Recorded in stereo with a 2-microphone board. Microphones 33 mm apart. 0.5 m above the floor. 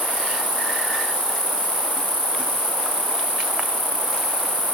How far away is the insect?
About 0.7 m.